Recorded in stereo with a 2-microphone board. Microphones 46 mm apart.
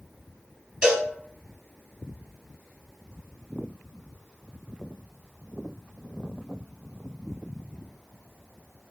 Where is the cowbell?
25° right (ahead or behind), 1.3 m.